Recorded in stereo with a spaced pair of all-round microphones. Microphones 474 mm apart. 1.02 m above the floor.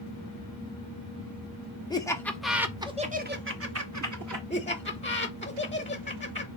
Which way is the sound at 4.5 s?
15° left (ahead or behind).